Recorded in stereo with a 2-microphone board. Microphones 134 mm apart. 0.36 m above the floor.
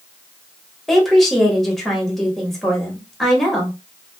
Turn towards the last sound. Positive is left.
turn(degrees=0)  # may be behind; listen again after turning